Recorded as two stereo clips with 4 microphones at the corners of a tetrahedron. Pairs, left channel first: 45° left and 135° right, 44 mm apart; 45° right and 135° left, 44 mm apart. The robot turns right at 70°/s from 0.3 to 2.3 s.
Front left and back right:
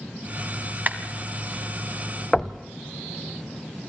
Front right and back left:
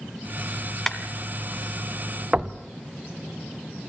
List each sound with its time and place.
0.9 s a clap: 125° right, 1.6 m; by 1.0 s 120° right, 1.6 m
2.3 s knocking: 120° left, 0.7 m